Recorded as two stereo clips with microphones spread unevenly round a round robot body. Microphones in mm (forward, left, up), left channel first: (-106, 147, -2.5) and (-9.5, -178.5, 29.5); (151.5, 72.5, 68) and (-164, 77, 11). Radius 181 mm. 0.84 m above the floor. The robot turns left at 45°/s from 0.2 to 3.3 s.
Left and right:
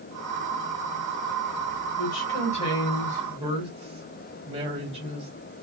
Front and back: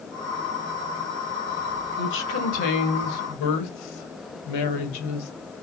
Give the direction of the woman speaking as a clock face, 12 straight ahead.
10 o'clock.